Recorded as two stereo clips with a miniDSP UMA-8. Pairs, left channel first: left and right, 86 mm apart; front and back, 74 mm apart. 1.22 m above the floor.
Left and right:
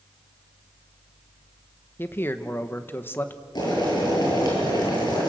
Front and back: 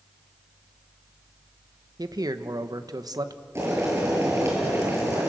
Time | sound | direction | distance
2.0 | a man speaking | 155° left | 1.2 m
3.5 | boiling | 125° left | 8 m